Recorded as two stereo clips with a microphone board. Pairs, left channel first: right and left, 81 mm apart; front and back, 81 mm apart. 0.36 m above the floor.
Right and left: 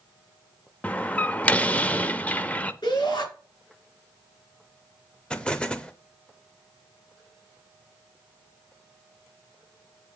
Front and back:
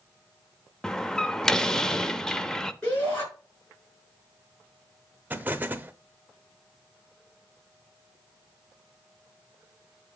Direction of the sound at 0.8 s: 65° right.